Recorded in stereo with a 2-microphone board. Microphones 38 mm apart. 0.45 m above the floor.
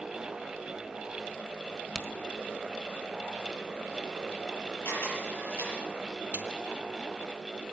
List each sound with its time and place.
1.9 s a crack: 10° left (ahead or behind), 1.2 m
4.8 s a camera shutter: 80° left, 7 m
6.3 s a snare drum: 55° right (ahead or behind), 3 m